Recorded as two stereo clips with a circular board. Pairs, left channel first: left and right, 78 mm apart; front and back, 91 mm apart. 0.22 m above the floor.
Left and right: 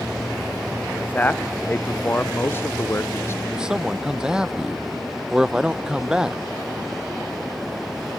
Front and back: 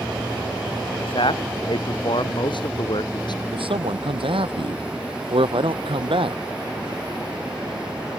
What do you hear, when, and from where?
0.9 s a man speaking: 20° left; by 3.4 s 35° left
3.5 s a man speaking: 170° right